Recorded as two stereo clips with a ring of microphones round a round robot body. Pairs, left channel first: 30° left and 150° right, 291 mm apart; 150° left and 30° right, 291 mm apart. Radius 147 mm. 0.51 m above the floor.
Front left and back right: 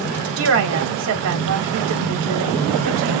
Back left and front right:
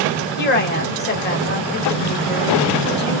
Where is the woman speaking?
165° right, 1.5 m.